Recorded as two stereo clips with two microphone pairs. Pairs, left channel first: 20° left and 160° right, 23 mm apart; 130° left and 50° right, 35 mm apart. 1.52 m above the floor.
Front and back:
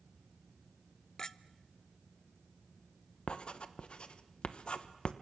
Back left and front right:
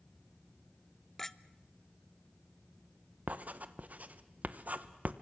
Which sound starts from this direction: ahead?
Writing, at 3.3 s.